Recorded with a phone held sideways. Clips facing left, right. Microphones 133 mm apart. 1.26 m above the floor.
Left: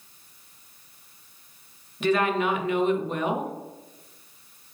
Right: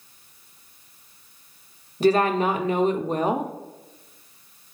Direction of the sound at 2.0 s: 35° right (ahead or behind).